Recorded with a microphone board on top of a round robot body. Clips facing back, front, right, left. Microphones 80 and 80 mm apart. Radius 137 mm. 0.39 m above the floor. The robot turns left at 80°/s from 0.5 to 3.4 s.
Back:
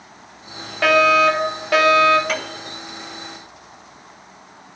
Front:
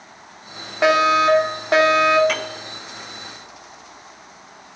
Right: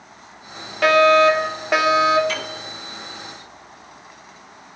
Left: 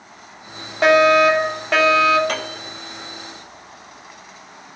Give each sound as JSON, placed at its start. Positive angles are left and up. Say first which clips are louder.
{"t": 0.8, "sound": "a fire alarm", "louder": "back 1 dB, even", "azimuth_deg": 55, "distance_m": 2.0}
{"t": 2.3, "sound": "a piano", "louder": "even, left 2 dB", "azimuth_deg": 95, "distance_m": 2.5}